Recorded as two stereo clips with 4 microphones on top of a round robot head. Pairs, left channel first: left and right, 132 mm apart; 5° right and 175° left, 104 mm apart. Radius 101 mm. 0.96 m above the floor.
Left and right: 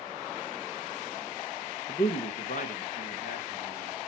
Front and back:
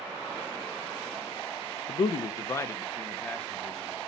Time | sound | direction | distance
1.9 | a man speaking | 35° left | 0.7 m